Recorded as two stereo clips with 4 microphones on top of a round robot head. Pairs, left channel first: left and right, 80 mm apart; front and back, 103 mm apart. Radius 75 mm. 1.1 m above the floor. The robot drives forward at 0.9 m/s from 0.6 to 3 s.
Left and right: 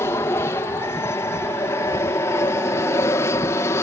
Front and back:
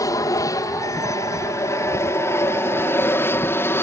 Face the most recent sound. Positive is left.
turn(degrees=55)